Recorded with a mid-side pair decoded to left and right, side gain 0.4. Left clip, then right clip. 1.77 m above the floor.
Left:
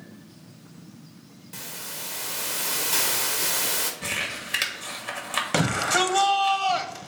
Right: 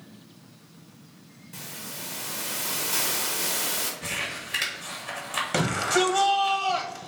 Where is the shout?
40° left, 1.4 m.